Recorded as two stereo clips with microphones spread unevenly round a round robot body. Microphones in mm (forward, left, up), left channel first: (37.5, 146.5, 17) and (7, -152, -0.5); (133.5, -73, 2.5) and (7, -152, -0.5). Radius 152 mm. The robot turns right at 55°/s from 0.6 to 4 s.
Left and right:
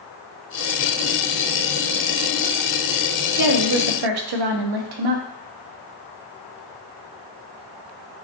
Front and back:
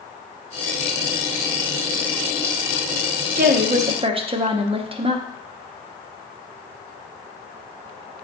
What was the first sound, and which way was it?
A woman speaking, 130° right.